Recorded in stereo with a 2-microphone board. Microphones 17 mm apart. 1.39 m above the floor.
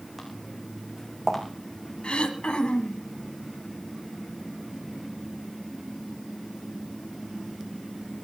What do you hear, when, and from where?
0.2 s footsteps: centre (ahead or behind), 4.5 m; by 1.4 s 10° left (ahead or behind), 4 m
2.0 s throat clearing: 60° left (ahead or behind), 2 m